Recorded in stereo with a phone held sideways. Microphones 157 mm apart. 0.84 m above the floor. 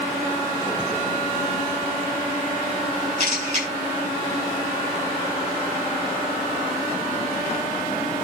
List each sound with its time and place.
3.2 s a camera shutter: 50° right (ahead or behind), 10 m